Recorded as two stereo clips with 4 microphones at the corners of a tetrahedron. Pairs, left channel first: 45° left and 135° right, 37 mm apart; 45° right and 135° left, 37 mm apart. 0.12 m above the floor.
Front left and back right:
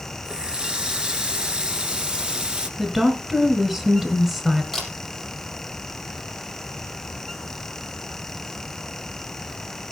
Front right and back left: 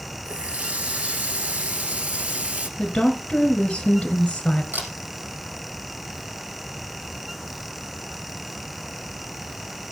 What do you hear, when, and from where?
0.2 s a running tap: 165° left, 1.1 m
2.8 s a woman speaking: 60° right, 1.3 m
4.7 s a camera shutter: 140° left, 4.5 m